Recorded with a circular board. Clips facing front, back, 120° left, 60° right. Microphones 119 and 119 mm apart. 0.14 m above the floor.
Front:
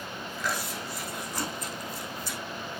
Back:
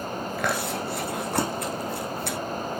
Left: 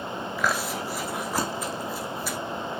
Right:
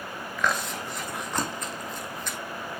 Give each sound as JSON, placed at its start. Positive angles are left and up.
{"t": 0.4, "sound": "chewing", "azimuth_deg": -155, "distance_m": 1.4}